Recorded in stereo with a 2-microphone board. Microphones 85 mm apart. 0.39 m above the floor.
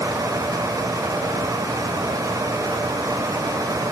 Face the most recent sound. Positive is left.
No sound to turn to.